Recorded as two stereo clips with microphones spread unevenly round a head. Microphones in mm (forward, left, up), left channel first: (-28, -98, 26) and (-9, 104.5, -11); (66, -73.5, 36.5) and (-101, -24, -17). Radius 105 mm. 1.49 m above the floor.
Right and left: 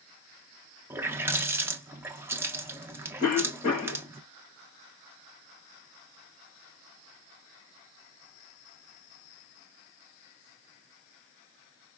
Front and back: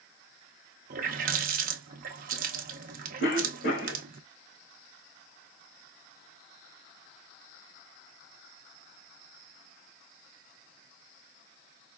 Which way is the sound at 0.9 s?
175° left.